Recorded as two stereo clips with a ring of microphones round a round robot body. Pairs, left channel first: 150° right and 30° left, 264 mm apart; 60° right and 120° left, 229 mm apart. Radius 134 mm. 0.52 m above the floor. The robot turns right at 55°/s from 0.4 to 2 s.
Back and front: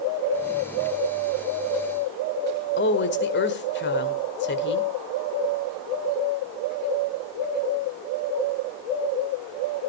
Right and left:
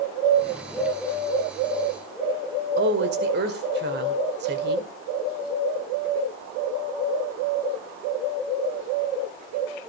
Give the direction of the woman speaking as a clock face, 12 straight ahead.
7 o'clock.